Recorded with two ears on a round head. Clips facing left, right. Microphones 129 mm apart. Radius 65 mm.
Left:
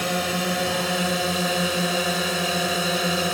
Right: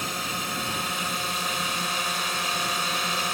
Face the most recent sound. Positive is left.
turn(degrees=75)  # may be behind; listen again after turning